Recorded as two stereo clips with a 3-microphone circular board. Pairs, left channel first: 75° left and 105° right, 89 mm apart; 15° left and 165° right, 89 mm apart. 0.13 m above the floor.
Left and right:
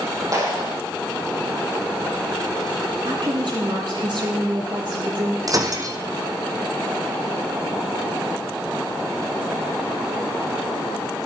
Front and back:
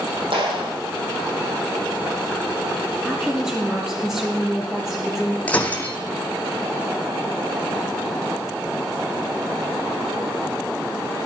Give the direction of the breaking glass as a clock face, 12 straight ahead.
2 o'clock.